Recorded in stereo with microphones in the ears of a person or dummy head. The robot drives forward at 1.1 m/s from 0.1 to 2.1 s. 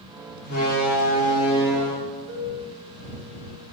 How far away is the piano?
About 3.5 m.